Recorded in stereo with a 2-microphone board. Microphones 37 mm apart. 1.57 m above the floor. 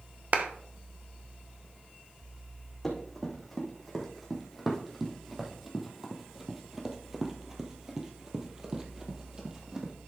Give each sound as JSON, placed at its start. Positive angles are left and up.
{"t": 0.3, "sound": "a clap", "side_deg": -45, "distance_m": 1.0}
{"t": 2.8, "sound": "running footsteps", "side_deg": 5, "distance_m": 3.5}